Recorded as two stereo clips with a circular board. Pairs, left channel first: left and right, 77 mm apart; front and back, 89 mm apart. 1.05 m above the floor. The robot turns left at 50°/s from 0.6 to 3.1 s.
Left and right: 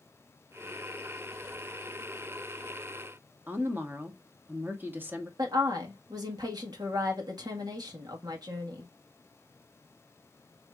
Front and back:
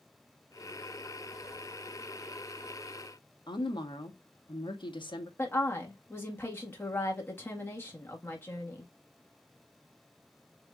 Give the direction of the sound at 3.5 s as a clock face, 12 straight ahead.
1 o'clock.